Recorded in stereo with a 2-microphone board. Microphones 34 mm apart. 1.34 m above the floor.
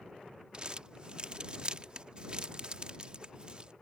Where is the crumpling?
30° right (ahead or behind).